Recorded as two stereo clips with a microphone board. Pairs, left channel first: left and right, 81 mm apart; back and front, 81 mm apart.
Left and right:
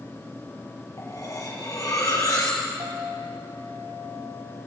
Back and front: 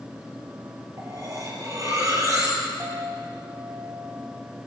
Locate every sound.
1.0 s cutlery clinking: 45° left, 4 m
2.8 s a clink: 60° right, 3 m